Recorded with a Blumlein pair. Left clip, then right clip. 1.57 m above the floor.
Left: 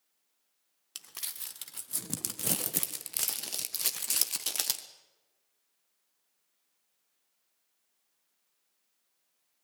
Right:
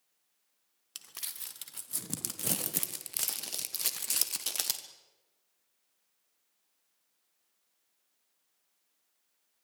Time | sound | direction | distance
0.9 | crumpling | 5° left | 1.5 m